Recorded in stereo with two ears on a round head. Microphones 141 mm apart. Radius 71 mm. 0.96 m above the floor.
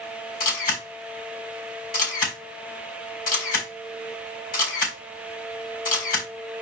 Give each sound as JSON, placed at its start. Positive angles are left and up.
{"t": 0.4, "sound": "a camera shutter", "side_deg": 60, "distance_m": 3.5}